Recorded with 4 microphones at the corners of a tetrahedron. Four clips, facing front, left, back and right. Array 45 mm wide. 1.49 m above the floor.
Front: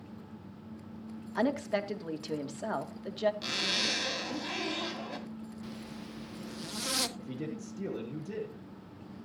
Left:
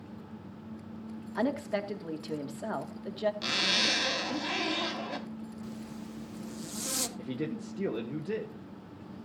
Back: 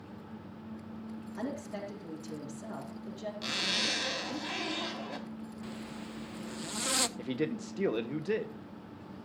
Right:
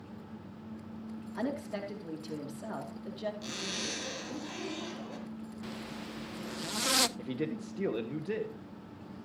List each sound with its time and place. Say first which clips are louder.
1.4 s a woman speaking: left 5 dB, front 9 dB; 30° left, 2.5 m
3.4 s a zipper: left 9 dB, even; 95° left, 2.5 m
5.6 s a zipper: even, back 1 dB; 105° right, 0.8 m
7.2 s a man speaking: even, back 5 dB; 175° right, 1.4 m